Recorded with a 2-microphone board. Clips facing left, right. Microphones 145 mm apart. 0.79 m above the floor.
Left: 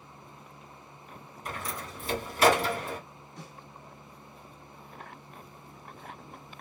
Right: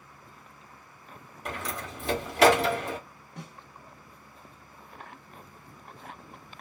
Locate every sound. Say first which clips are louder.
1.4 s a door slam: right 2 dB; 75° right (ahead or behind), 1.3 m
3.4 s a snare drum: right 3 dB; 65° right (ahead or behind), 0.9 m